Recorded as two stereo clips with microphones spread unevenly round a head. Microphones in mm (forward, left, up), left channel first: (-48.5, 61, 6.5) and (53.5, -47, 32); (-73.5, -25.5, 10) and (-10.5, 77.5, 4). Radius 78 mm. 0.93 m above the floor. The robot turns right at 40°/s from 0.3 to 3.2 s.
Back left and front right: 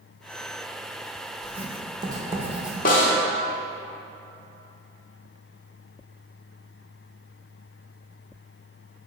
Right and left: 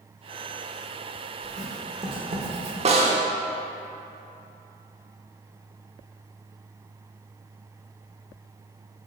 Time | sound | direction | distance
1.4 | writing | 5° right | 0.9 m
2.9 | a snare drum | 95° left | 1.0 m